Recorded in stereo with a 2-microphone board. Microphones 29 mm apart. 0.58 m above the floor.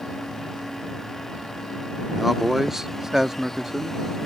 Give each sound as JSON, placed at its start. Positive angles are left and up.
{"t": 2.1, "sound": "a man speaking", "side_deg": -5}